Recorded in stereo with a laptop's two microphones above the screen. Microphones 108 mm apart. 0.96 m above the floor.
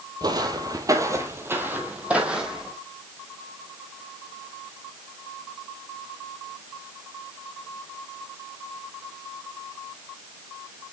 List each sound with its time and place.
0.2 s footsteps: 40° right (ahead or behind), 1.2 m; by 2.7 s 5° right (ahead or behind), 1.6 m